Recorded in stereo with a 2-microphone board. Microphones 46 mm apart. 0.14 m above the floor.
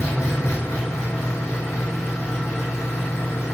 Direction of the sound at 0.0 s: 80° left.